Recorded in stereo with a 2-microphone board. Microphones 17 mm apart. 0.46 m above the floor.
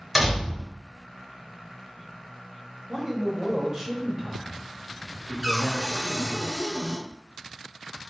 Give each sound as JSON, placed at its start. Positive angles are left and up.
{"t": 0.1, "sound": "a door slam", "side_deg": -5, "distance_m": 1.6}
{"t": 2.9, "sound": "a man speaking", "side_deg": -30, "distance_m": 1.1}
{"t": 5.4, "sound": "a cupboard door", "side_deg": 25, "distance_m": 1.3}